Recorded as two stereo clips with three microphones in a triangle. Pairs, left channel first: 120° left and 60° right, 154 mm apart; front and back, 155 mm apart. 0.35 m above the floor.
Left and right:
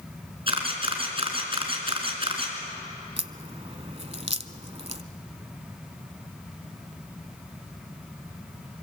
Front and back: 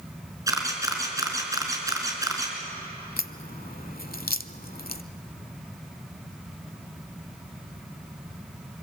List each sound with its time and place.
0.5 s a camera shutter: 115° right, 4 m
3.2 s a crack: 15° right, 0.7 m